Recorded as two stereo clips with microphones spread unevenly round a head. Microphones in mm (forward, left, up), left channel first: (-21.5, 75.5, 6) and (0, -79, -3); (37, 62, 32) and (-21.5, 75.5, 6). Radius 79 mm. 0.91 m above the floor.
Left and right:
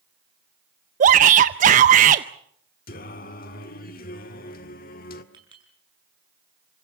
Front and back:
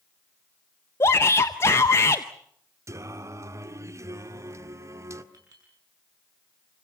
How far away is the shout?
About 0.6 m.